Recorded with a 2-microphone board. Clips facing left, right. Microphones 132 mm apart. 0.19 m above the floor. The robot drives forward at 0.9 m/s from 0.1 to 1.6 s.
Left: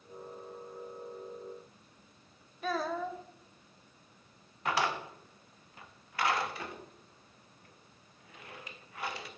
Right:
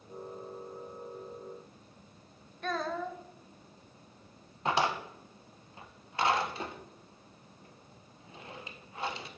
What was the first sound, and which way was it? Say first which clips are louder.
A child speaking: left 1 dB; 5° left (ahead or behind).